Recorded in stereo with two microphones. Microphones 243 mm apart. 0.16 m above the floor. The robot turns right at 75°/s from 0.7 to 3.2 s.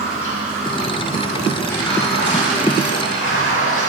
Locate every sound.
0.0 s running water: 65° right, 3 m; by 3.9 s 120° left, 3 m